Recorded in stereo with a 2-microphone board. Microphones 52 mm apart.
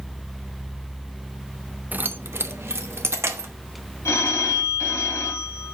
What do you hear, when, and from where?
1.9 s keys jangling: 35° right (ahead or behind), 0.5 m; by 3.5 s 60° right (ahead or behind), 1.3 m
4.0 s a phone ringing: 60° left (ahead or behind), 2 m